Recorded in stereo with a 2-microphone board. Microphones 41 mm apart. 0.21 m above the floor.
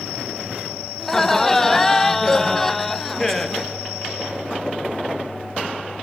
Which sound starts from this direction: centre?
Laughter, at 1.0 s.